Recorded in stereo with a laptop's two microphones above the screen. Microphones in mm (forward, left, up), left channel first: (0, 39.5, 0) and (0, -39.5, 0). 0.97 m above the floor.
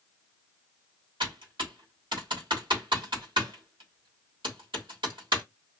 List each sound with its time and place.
1.2 s typing on a keyboard: 85° right, 1.3 m